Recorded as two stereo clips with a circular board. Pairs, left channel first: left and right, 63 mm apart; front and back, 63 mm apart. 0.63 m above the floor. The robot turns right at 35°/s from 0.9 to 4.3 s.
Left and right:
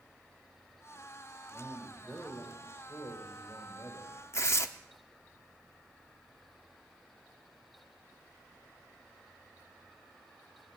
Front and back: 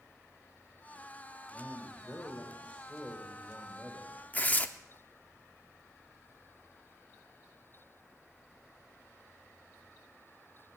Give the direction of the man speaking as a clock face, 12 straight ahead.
11 o'clock.